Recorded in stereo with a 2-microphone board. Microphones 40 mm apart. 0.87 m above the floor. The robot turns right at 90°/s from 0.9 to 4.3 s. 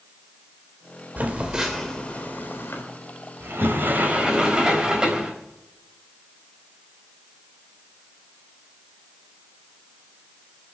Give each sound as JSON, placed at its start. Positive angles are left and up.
{"t": 1.2, "sound": "a phone buzzing", "side_deg": -50, "distance_m": 3.5}
{"t": 3.4, "sound": "a sliding door", "azimuth_deg": -105, "distance_m": 4.5}